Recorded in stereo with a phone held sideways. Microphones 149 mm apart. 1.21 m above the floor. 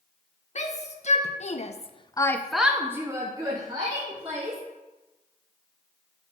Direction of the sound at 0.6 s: 50° left (ahead or behind).